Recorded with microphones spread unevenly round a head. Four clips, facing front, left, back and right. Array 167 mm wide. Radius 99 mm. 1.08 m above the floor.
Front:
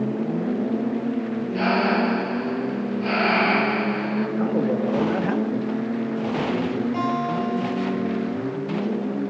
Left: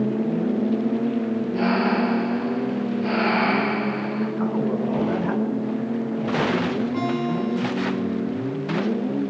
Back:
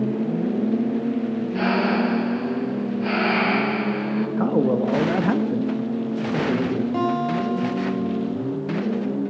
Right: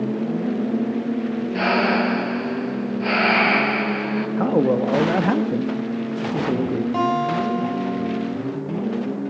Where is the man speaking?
130° right, 1.4 m.